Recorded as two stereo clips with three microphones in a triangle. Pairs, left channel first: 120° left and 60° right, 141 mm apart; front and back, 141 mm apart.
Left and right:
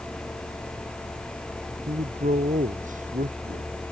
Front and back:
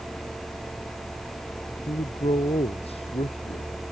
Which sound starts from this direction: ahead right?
A man speaking, at 1.9 s.